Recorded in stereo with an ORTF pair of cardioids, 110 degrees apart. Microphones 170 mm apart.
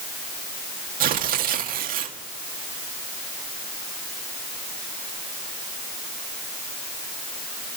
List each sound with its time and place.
1.0 s tearing paper: 60° right, 1.9 m